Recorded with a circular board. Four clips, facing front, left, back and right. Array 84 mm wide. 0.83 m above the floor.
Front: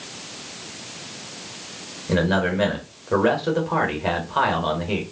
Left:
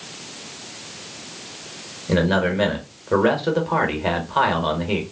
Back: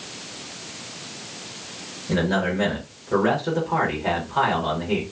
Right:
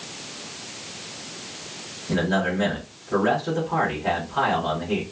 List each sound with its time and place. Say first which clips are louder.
2.1 s a man speaking: left 4 dB, front 2 dB; 65° left, 1.1 m